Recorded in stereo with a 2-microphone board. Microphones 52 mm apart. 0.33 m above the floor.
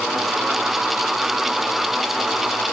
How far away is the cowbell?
No cowbell in this recording.